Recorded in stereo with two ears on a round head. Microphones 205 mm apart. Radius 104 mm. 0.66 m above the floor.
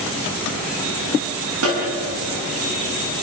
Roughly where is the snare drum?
Right.